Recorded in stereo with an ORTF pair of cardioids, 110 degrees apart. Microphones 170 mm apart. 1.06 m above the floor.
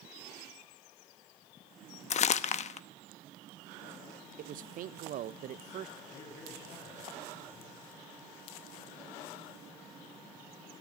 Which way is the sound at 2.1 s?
45° left.